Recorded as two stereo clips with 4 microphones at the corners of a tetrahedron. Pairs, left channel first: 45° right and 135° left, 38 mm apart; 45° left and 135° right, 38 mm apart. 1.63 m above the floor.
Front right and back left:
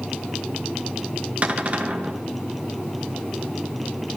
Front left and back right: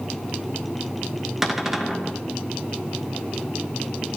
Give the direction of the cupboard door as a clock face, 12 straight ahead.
7 o'clock.